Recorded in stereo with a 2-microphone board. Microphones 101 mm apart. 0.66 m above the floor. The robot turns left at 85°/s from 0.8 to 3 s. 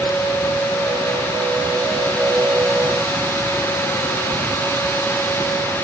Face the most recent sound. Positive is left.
No sound to turn to.